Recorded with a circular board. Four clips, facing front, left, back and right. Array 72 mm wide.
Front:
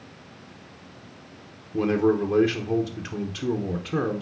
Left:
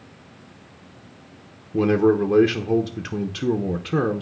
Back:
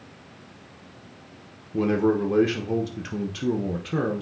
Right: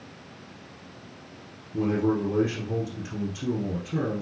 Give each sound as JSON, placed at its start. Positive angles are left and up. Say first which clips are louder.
{"t": 1.7, "sound": "a man speaking", "louder": "left 7 dB, even", "azimuth_deg": 100, "distance_m": 1.0}